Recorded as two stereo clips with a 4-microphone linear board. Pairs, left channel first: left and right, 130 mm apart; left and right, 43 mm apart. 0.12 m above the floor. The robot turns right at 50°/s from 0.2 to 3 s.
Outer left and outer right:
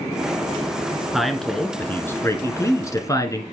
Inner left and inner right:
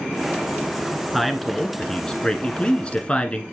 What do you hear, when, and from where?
1.1 s a man speaking: centre (ahead or behind), 1.3 m; by 3.4 s 25° left (ahead or behind), 1.3 m